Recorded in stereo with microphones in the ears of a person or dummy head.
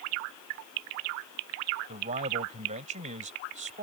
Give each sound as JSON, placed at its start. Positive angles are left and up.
{"t": 1.9, "sound": "a man speaking", "side_deg": -35}